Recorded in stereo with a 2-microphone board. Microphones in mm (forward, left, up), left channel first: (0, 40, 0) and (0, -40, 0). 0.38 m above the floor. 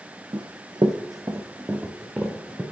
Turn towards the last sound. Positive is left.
turn(degrees=-10)  # may be behind; listen again after turning